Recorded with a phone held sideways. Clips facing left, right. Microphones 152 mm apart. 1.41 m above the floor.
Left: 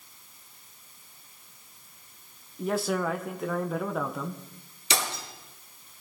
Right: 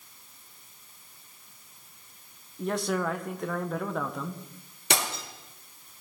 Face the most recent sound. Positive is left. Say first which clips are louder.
# right 1 dB
turn(degrees=-65)  # may be behind; listen again after turning